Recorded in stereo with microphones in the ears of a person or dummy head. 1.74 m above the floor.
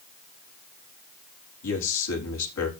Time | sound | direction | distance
1.6 | a man speaking | 75° left (ahead or behind) | 4.5 m